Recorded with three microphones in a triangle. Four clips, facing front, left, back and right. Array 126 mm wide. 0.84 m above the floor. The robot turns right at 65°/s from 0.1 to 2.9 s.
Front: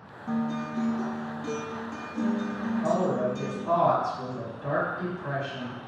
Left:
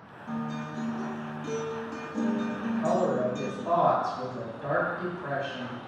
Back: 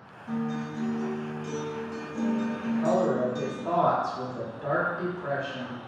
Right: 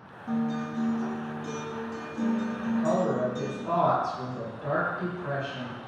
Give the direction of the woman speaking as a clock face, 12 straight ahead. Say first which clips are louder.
Even, back 1 dB; 7 o'clock.